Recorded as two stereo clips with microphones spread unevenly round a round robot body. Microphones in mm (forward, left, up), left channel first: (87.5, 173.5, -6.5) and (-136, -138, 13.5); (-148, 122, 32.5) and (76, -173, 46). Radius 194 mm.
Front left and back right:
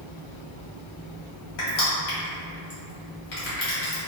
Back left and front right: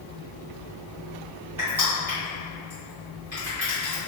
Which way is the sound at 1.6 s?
30° left.